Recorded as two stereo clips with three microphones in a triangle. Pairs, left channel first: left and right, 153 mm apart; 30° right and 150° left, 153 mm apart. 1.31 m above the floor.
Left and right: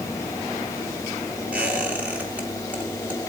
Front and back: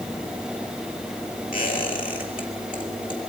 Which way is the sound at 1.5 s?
10° right.